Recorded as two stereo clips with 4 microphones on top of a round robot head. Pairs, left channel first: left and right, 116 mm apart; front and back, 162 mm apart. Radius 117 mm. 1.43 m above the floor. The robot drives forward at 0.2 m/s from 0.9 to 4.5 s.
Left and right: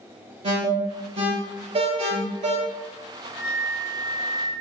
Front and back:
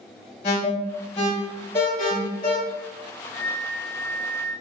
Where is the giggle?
I don't hear a giggle.